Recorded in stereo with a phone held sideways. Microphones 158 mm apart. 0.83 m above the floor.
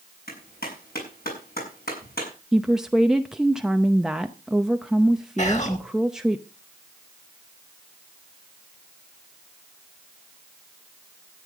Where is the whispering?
45° left (ahead or behind), 4 m.